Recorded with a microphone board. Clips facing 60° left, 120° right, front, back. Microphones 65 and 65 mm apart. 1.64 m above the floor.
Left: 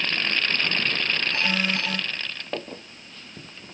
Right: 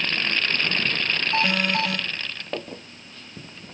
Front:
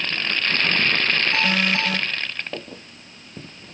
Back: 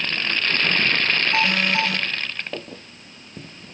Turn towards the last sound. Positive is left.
turn(degrees=-90)